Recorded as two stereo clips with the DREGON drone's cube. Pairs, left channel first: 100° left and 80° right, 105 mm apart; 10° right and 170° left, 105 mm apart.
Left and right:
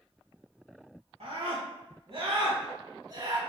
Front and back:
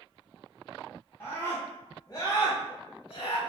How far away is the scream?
About 2.5 m.